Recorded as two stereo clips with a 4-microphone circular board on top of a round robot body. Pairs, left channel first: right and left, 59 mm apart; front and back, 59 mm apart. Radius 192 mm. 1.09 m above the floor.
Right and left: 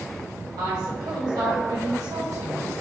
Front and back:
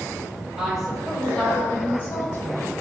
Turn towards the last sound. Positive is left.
turn(degrees=45)